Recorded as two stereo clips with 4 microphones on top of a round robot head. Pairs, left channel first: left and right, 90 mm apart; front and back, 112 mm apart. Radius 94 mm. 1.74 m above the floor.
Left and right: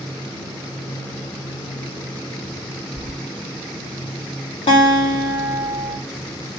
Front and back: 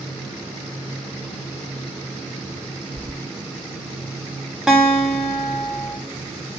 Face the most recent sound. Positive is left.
turn(degrees=95)